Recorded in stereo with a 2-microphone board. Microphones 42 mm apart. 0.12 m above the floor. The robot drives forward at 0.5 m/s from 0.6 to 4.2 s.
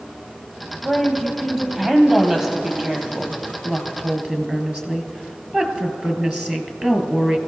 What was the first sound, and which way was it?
A woman speaking, 15° right (ahead or behind).